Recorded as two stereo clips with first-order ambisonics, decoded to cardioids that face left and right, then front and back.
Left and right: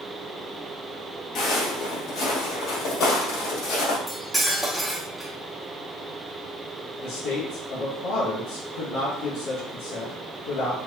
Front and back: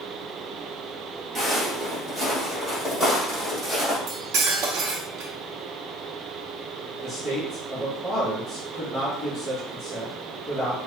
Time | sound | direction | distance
1.4 | footsteps | 110° left | 1.7 m
4.1 | cutlery clinking | straight behind | 0.9 m
7.0 | a man speaking | 90° left | 1.5 m